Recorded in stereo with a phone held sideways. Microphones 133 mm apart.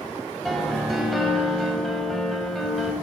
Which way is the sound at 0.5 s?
Centre (ahead or behind).